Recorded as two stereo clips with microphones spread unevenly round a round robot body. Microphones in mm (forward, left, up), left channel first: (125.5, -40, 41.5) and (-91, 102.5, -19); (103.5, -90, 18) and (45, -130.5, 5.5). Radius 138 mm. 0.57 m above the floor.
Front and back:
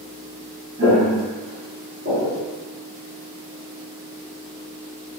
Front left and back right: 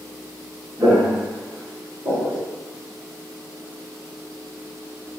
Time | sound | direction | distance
0.8 | footsteps | 170° right | 1.7 m